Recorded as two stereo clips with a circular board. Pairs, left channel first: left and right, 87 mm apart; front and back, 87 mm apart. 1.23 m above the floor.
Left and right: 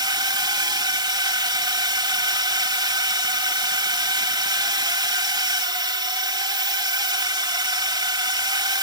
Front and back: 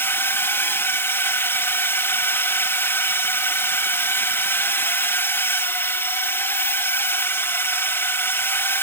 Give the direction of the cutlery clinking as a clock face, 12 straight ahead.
I don't hear cutlery clinking.